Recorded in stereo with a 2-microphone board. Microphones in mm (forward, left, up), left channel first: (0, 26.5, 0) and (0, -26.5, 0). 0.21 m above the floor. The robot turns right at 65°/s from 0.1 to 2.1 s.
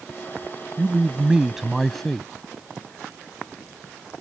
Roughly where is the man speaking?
Right.